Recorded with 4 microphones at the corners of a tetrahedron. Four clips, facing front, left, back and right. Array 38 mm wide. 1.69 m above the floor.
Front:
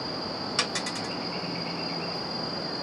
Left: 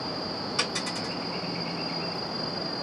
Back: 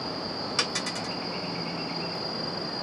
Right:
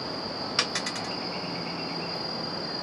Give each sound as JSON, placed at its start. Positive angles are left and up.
{"t": 0.6, "sound": "a dropped coin", "azimuth_deg": -75, "distance_m": 1.6}